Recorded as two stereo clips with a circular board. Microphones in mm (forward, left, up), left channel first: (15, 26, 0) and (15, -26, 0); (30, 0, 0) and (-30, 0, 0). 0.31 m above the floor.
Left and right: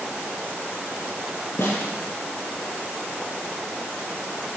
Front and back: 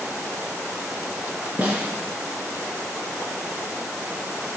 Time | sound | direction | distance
1.6 | a snare drum | 120° left | 3 m